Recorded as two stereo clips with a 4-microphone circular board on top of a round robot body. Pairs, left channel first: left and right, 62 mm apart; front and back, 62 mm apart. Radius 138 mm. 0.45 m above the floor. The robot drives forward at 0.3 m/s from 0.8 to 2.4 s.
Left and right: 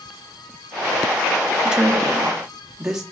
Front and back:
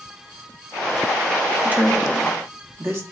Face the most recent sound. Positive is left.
turn(degrees=-165)